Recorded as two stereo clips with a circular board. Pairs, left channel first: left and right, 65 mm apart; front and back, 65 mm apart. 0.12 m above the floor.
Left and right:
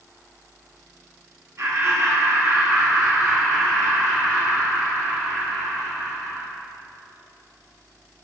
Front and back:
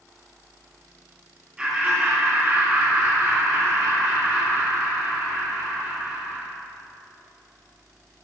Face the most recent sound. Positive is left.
turn(degrees=150)